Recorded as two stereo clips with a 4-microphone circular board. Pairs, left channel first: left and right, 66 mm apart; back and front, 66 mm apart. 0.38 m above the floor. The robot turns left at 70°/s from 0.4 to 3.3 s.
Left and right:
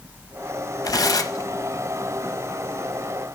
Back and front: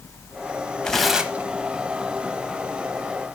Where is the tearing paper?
105° left, 0.9 m; by 1.5 s 55° left, 0.9 m.